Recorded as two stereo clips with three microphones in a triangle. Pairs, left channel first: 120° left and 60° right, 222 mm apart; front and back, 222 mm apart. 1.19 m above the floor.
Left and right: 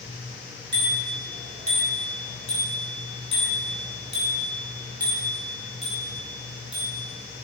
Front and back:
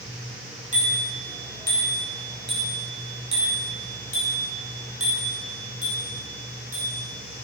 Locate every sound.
0.7 s a bicycle bell: 120° left, 6.5 m; by 7.0 s 170° right, 7.5 m